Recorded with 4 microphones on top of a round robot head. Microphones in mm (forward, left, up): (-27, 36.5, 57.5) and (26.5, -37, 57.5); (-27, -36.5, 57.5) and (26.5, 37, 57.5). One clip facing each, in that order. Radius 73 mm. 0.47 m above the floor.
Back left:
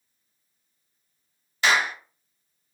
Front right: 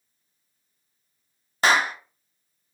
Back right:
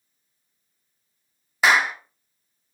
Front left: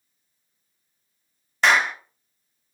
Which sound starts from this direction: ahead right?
A clap, at 1.6 s.